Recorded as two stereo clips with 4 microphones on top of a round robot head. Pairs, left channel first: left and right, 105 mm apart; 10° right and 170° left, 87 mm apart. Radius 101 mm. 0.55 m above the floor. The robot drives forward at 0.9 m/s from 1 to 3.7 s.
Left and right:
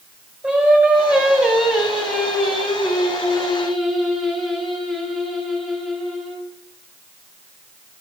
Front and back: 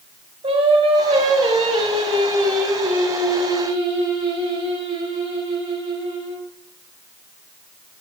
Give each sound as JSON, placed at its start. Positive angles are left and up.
{"t": 0.4, "sound": "singing", "azimuth_deg": -170, "distance_m": 2.0}